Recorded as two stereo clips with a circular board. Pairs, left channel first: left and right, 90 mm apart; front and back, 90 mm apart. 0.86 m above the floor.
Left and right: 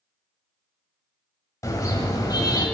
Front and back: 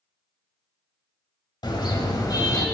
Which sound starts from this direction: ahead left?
A car horn, at 1.6 s.